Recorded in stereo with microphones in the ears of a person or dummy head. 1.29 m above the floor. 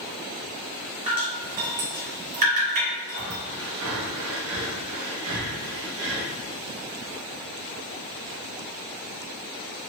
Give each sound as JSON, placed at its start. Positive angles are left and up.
{"t": 1.1, "sound": "dripping", "side_deg": -40, "distance_m": 1.2}
{"t": 3.1, "sound": "breathing", "side_deg": -65, "distance_m": 0.9}